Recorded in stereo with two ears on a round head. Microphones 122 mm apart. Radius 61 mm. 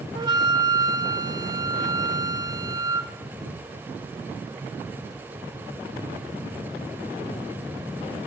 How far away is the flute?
About 1.1 m.